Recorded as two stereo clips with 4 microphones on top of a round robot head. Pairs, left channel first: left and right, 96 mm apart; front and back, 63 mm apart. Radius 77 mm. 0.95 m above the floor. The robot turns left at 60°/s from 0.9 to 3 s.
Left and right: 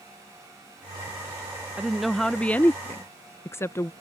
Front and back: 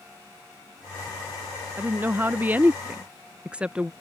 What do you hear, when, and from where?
1.8 s a woman speaking: 165° right; by 3.9 s 125° left